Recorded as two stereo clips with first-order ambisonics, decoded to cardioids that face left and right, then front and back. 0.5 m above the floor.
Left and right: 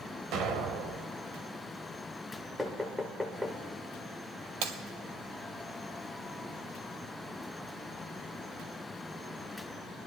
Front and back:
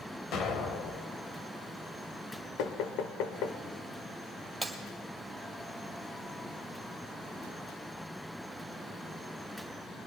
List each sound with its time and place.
0.3 s an explosion: 50° right, 1.0 m
2.6 s knocking: 5° left, 1.0 m
4.6 s breaking glass: 95° right, 1.5 m